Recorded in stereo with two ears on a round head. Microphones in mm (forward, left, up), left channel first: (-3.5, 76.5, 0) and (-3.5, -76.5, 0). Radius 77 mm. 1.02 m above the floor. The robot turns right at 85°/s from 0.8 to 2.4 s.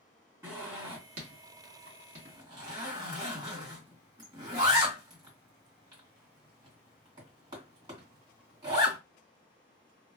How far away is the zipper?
About 1.9 m.